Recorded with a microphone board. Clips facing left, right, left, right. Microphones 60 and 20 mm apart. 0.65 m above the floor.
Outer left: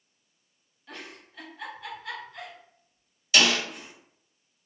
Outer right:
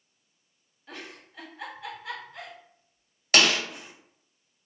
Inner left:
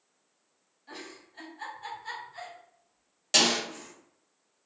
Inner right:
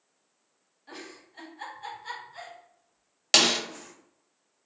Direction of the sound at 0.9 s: 10° right (ahead or behind).